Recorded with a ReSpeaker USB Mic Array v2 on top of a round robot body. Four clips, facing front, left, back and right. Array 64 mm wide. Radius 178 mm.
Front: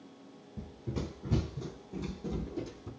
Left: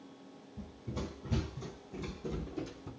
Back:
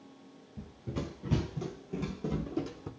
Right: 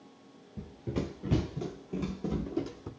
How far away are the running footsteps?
About 0.8 m.